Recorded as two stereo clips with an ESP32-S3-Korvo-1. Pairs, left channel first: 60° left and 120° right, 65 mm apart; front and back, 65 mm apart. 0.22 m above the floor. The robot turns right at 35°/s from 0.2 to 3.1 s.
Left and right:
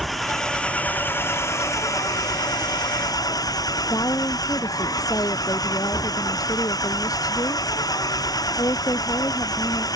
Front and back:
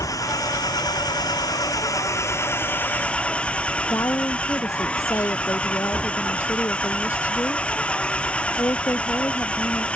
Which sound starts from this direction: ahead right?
An engine running, at 0.0 s.